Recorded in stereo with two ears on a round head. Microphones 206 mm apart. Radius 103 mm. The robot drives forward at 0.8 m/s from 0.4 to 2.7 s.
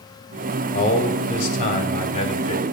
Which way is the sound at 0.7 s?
45° left (ahead or behind).